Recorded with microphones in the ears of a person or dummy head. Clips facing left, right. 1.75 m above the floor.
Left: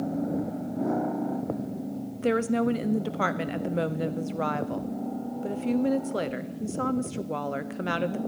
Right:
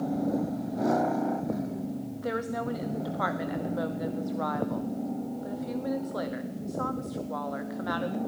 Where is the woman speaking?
40° left (ahead or behind), 0.6 m.